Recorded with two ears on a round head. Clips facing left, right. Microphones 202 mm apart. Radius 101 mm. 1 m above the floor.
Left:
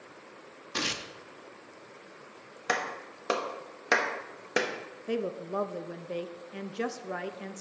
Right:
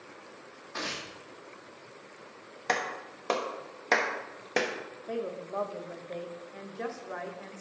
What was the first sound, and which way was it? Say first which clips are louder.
Tearing paper: left 3 dB; 45° left (ahead or behind).